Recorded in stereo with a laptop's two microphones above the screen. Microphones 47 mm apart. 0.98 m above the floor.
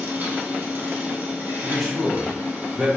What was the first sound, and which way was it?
A machine running, 45° right (ahead or behind).